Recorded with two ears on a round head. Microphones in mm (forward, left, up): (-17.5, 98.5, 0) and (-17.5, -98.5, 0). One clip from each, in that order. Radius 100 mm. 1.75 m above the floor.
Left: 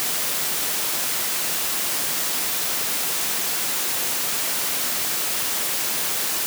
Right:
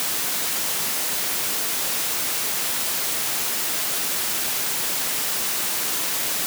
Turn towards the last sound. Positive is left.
No sound to turn to.